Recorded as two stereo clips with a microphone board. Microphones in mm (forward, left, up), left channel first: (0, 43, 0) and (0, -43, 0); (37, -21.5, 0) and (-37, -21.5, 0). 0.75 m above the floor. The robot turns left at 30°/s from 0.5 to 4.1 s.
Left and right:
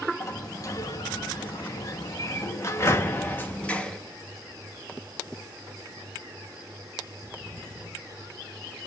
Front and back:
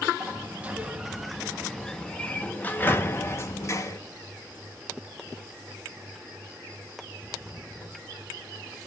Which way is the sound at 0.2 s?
120° left.